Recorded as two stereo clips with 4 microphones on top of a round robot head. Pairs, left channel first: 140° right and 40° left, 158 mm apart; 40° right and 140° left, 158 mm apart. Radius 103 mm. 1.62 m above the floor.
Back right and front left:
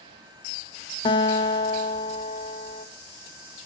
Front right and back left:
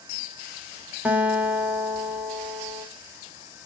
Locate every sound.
1.1 s a guitar: 150° right, 1.1 m